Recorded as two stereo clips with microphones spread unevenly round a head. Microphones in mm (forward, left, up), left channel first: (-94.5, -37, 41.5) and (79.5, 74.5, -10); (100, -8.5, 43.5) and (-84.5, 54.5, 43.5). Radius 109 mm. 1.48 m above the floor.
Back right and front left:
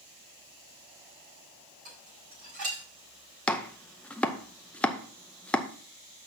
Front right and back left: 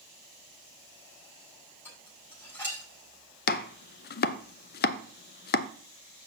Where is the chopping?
55° right, 0.5 m.